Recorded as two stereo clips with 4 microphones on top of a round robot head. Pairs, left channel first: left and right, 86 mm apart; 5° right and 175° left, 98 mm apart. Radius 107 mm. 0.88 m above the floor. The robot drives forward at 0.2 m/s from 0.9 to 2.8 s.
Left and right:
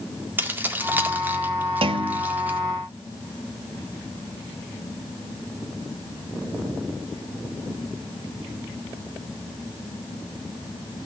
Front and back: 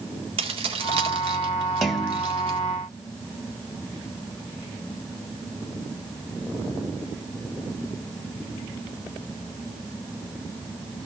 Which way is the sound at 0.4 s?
160° right.